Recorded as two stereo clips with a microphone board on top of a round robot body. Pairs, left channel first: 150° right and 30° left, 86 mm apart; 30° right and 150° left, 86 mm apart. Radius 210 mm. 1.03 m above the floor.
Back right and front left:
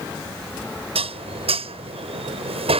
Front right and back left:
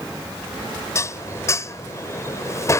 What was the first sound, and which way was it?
Dishes clattering, 30° left.